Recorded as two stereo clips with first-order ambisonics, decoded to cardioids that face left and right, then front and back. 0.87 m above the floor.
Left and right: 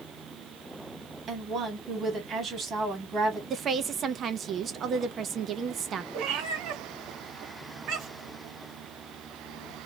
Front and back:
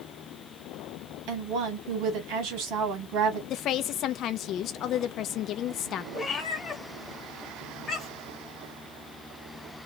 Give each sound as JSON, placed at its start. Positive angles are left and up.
{"t": 1.3, "sound": "a woman speaking", "azimuth_deg": -155, "distance_m": 1.8}
{"t": 3.5, "sound": "a woman speaking", "azimuth_deg": -35, "distance_m": 0.6}
{"t": 6.1, "sound": "a cat meowing", "azimuth_deg": -70, "distance_m": 1.2}